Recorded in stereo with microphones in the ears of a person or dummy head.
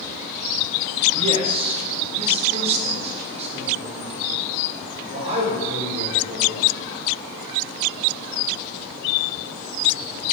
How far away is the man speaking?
About 1.7 m.